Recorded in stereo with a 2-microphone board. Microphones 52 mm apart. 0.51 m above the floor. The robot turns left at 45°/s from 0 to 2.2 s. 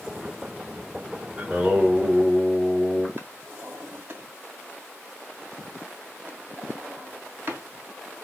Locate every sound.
1.4 s singing: 155° right, 1.7 m; by 3.1 s 165° left, 1.7 m
3.2 s a drawer: 45° right (ahead or behind), 1.2 m